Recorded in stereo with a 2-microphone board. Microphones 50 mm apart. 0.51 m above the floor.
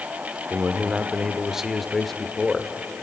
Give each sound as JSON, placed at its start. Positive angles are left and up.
{"t": 0.5, "sound": "a man speaking", "side_deg": -35, "distance_m": 1.1}